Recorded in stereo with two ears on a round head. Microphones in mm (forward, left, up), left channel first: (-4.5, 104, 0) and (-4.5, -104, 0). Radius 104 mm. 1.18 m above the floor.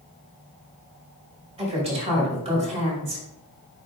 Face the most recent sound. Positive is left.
turn(degrees=-25)  # may be behind; listen again after turning